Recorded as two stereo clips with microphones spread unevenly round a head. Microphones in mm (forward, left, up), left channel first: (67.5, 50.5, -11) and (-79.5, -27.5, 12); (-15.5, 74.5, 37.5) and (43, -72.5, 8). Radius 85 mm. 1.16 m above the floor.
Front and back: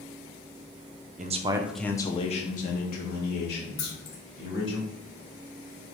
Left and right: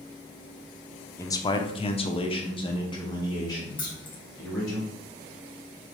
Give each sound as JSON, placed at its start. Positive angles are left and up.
{"t": 1.2, "sound": "a man speaking", "azimuth_deg": -170, "distance_m": 0.6}
{"t": 3.8, "sound": "keys jangling", "azimuth_deg": 50, "distance_m": 1.5}